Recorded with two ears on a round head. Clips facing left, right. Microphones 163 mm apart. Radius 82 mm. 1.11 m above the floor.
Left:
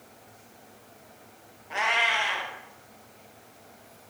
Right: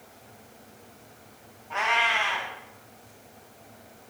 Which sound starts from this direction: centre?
A cat meowing, at 1.7 s.